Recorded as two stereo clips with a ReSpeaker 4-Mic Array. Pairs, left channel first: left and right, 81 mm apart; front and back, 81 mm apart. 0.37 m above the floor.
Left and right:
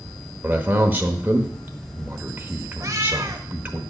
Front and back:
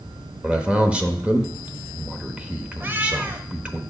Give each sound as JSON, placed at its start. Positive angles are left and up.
{"t": 0.4, "sound": "a man speaking", "azimuth_deg": -120, "distance_m": 0.9}
{"t": 2.8, "sound": "a cat meowing", "azimuth_deg": -125, "distance_m": 0.8}